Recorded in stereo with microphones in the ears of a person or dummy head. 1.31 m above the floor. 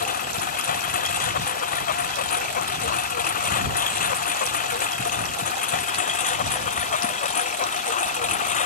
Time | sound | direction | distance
0.0 | a lawn mower | 45° left (ahead or behind) | ?